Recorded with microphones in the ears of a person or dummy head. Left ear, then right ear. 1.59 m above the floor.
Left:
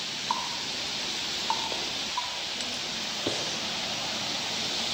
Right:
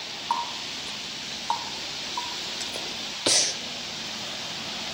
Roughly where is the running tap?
Centre.